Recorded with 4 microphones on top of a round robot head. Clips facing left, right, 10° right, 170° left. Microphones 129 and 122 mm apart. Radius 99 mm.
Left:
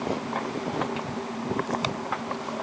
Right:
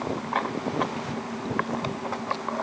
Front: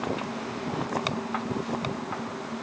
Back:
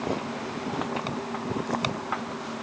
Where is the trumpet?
No trumpet in this recording.